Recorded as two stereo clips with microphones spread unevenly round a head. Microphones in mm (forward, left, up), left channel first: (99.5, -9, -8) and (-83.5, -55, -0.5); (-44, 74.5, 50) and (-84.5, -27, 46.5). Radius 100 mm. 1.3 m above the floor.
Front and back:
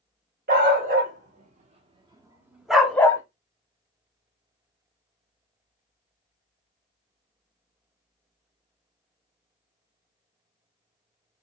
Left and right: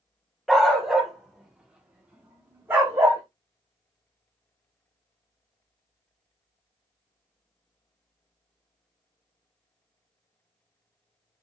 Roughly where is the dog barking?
Behind.